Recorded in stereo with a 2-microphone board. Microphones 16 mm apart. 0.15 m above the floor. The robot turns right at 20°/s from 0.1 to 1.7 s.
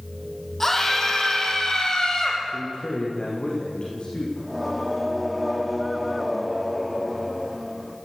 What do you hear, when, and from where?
0.6 s a scream: 20° left (ahead or behind), 5.5 m; by 2.4 s 40° left (ahead or behind), 5.5 m
2.5 s a man speaking: 60° left (ahead or behind), 9.5 m
4.4 s singing: 5° right (ahead or behind), 5.5 m